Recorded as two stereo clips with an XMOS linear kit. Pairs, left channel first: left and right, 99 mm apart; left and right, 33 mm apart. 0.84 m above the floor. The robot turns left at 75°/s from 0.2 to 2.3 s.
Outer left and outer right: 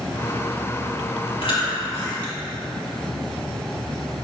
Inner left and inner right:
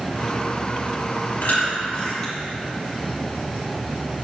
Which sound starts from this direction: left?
Chewing, at 1.4 s.